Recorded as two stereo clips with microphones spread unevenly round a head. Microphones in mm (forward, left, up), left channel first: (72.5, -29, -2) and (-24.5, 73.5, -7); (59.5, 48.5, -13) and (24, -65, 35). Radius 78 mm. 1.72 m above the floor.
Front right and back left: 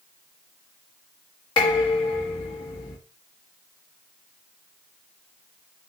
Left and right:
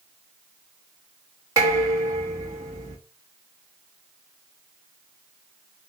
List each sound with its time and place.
1.6 s dishes clattering: 90° right, 1.3 m